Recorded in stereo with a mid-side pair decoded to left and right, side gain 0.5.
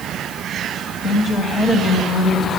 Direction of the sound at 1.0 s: 45° left.